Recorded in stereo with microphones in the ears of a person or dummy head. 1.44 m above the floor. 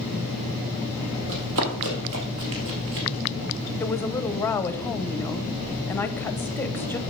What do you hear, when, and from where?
1.3 s running footsteps: 65° right (ahead or behind), 3 m; by 3.1 s 50° right (ahead or behind), 2 m
3.8 s a woman speaking: 10° left (ahead or behind), 0.8 m